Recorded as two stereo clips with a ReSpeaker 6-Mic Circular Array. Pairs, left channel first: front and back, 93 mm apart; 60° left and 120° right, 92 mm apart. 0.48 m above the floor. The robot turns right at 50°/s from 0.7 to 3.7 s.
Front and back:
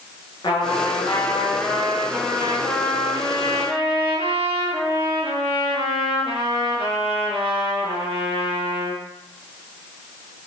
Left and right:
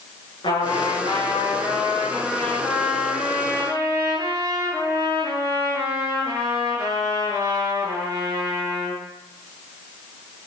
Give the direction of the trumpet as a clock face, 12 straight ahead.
11 o'clock.